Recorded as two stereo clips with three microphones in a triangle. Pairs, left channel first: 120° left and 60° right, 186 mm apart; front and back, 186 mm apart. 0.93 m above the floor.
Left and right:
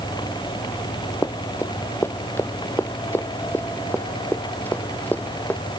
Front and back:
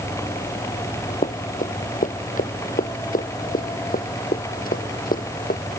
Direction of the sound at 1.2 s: 45° left.